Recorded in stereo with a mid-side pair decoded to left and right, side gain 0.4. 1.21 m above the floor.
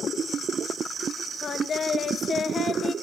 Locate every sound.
1.4 s singing: 50° left, 0.6 m